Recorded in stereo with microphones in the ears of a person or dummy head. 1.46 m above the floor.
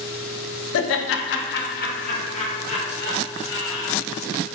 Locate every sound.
0.7 s laughter: 70° left (ahead or behind), 0.5 m; by 4.5 s 30° left (ahead or behind), 2 m